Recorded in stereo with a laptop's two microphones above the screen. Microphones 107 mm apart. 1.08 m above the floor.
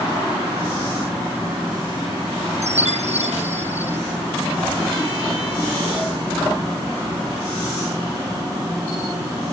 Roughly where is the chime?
Right.